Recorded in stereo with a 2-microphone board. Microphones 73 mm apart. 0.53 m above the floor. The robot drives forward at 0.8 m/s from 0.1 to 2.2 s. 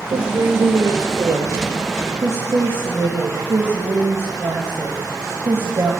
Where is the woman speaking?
65° right (ahead or behind), 1.8 m; by 5.9 s 40° right (ahead or behind), 2.5 m.